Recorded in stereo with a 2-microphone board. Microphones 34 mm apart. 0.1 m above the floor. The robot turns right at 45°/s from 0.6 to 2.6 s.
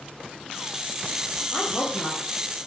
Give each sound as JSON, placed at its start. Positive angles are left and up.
{"t": 1.5, "sound": "a woman speaking", "azimuth_deg": 35, "distance_m": 3.5}